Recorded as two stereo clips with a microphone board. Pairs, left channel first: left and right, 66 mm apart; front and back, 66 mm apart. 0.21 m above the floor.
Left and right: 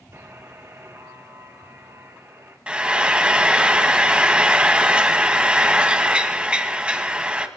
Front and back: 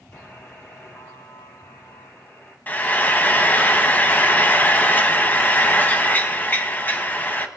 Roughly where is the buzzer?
Ahead right.